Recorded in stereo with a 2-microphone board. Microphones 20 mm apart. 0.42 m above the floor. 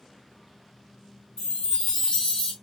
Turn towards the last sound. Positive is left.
turn(degrees=30)  # may be behind; listen again after turning